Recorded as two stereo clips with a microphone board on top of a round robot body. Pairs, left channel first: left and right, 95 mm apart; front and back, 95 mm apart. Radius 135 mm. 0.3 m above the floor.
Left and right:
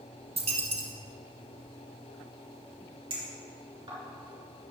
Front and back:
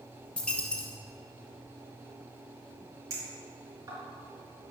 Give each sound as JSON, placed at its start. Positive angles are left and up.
{"t": 0.4, "sound": "a dropped coin", "azimuth_deg": -80, "distance_m": 1.4}
{"t": 3.1, "sound": "a clink", "azimuth_deg": -125, "distance_m": 4.0}